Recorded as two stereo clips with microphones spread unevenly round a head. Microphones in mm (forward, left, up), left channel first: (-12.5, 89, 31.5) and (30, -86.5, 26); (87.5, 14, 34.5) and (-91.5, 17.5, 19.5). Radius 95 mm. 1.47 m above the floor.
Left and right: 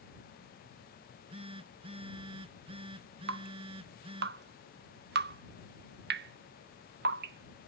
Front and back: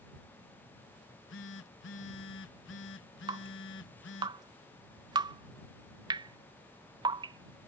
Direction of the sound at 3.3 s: 110° right.